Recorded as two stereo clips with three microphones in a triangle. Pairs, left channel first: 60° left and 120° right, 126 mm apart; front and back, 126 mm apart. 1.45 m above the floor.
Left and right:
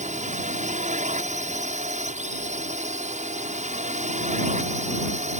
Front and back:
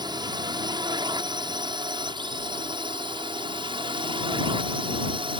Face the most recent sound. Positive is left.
turn(degrees=-135)